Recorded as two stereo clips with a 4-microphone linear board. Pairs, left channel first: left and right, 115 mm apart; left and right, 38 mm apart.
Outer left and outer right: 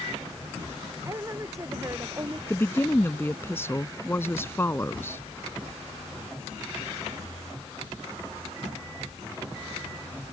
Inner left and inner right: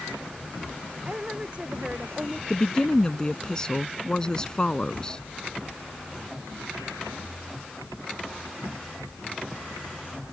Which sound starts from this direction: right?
A woman speaking, at 1.1 s.